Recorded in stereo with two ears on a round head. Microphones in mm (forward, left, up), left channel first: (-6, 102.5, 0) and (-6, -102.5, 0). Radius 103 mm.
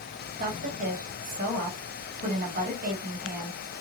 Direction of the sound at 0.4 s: 35° right (ahead or behind).